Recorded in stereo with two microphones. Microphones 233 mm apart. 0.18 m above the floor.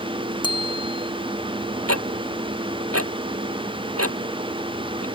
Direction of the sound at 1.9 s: 85° right.